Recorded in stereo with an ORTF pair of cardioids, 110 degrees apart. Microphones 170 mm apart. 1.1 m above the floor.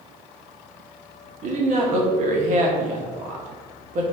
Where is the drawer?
I don't hear a drawer.